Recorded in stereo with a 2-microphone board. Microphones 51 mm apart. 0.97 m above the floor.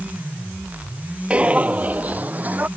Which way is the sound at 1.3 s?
25° right (ahead or behind).